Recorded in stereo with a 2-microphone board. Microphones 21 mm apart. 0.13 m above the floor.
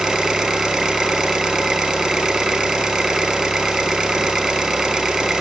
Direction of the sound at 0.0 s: 35° right (ahead or behind).